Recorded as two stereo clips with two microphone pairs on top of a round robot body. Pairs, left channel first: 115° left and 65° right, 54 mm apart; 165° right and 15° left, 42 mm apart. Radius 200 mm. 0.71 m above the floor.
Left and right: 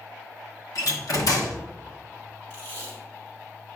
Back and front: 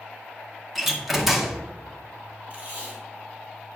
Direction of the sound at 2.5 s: 70° left.